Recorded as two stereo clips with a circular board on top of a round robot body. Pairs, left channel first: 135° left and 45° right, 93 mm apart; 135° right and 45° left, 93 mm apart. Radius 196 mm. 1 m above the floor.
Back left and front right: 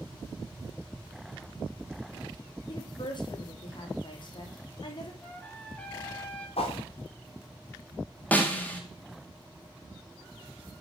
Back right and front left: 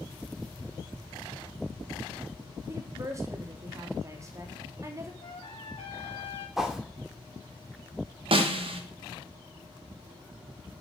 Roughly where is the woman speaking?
Left.